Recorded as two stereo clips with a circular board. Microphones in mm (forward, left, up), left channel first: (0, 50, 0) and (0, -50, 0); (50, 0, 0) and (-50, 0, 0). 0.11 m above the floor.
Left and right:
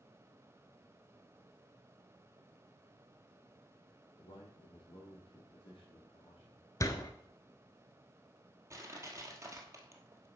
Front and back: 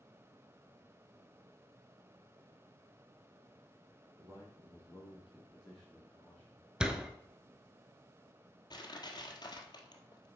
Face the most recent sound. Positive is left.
turn(degrees=-35)